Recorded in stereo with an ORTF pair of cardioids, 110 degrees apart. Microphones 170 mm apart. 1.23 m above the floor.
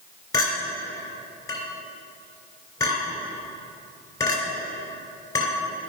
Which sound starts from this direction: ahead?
A clink, at 0.3 s.